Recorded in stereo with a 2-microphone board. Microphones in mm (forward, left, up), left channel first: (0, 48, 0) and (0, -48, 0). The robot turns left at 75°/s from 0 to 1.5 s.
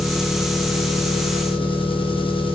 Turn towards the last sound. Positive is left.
turn(degrees=65)